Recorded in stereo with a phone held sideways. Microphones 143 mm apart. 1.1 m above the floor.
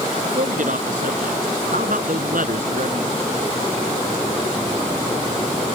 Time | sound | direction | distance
0.2 | a man speaking | 70° right (ahead or behind) | ?